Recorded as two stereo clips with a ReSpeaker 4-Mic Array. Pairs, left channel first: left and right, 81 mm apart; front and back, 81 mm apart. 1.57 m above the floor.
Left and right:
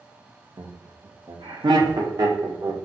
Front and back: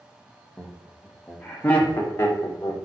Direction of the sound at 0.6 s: 95° right.